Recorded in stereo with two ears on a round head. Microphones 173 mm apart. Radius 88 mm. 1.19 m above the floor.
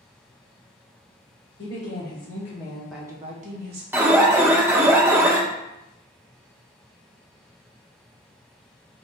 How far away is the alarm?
About 0.7 m.